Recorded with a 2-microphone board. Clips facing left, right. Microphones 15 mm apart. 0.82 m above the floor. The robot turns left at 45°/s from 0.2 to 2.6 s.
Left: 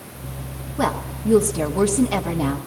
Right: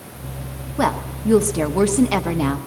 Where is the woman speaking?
35° right, 1.0 m; by 2.6 s 115° right, 1.0 m.